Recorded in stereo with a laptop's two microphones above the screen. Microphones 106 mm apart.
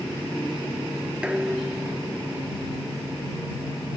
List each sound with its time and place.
1.2 s dishes clattering: 10° right (ahead or behind)